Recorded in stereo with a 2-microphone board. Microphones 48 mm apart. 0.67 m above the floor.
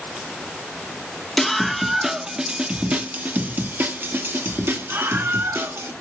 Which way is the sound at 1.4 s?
5° left (ahead or behind).